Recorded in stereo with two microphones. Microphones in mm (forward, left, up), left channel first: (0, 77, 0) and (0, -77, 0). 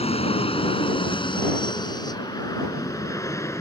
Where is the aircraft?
40° left (ahead or behind); by 3.6 s 15° left (ahead or behind).